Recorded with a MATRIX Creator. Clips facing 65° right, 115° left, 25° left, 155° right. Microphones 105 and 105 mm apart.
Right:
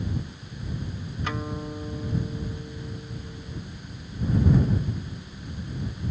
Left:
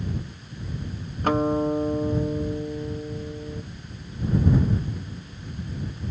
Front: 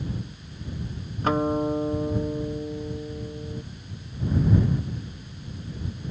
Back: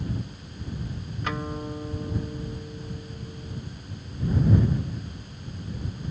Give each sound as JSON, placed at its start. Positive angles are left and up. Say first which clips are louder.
{"t": 1.2, "sound": "a guitar", "louder": "left 12 dB, front 10 dB", "azimuth_deg": 75}